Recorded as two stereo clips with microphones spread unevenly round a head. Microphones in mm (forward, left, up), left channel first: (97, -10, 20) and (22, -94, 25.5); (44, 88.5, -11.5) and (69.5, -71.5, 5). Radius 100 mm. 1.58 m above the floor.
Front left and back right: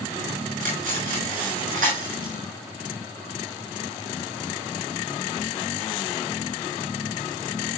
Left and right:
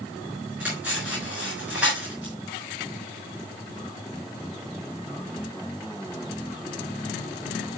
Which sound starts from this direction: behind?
Cutlery clinking, at 0.6 s.